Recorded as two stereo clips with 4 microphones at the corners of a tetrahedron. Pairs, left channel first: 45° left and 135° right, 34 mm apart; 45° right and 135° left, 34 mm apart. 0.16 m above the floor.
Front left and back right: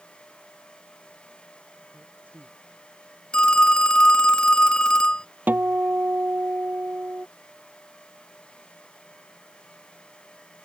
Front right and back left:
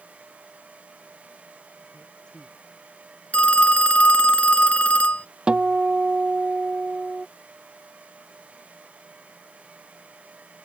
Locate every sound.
1.9 s a man speaking: 110° right
3.3 s a phone ringing: 10° right
5.5 s a guitar: 160° right